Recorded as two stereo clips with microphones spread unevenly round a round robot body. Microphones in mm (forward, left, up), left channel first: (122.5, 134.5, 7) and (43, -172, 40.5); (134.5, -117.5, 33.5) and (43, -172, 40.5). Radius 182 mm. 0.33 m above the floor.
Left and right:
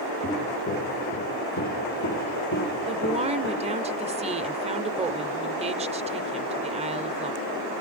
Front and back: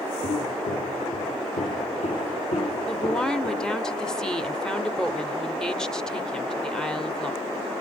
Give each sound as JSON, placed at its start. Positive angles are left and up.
{"t": 0.2, "sound": "footsteps", "azimuth_deg": 5, "distance_m": 2.5}
{"t": 2.9, "sound": "a woman speaking", "azimuth_deg": -40, "distance_m": 1.0}